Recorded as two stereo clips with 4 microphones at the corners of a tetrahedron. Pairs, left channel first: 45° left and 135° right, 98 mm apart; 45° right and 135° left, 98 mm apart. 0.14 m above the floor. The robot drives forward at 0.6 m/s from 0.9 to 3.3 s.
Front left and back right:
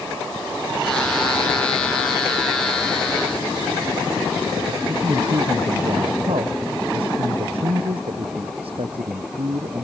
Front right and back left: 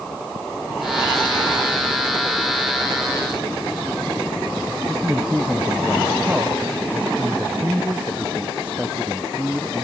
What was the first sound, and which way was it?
A man speaking, 150° right.